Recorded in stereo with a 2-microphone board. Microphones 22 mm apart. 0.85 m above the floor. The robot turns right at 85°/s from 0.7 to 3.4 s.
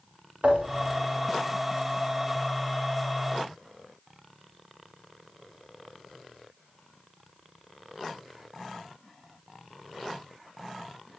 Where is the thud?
80° right, 5.5 m; by 1.0 s 70° right (ahead or behind), 5.5 m.